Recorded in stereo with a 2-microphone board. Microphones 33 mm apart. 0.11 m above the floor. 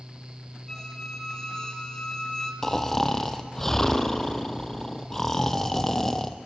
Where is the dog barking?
No dog barking in this recording.